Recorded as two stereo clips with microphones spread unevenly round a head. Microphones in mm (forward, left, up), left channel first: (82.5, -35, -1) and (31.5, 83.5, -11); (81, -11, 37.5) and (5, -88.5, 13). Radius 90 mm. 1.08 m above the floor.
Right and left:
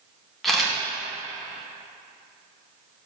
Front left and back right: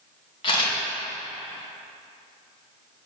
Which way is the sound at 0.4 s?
20° left.